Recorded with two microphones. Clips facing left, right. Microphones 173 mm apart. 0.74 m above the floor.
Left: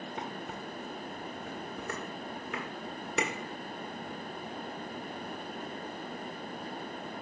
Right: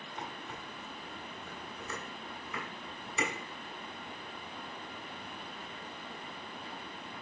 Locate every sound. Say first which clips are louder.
0.2 s dishes clattering: left 2 dB; 80° left, 1.3 m